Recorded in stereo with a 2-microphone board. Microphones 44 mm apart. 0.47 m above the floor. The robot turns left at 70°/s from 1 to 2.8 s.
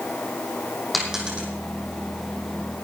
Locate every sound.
0.9 s a dropped coin: centre (ahead or behind), 3.5 m; by 1.5 s 35° right (ahead or behind), 3.5 m